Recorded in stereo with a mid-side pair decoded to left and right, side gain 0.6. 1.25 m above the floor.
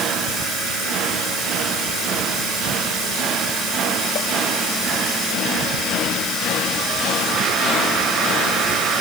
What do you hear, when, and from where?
Only background noise.